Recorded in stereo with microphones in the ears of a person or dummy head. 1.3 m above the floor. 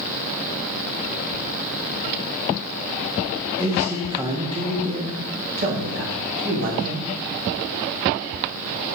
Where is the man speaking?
5° right (ahead or behind), 1.6 m; by 7.1 s 60° right (ahead or behind), 3 m.